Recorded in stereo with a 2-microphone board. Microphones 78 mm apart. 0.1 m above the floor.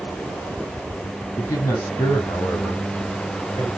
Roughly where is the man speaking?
Left.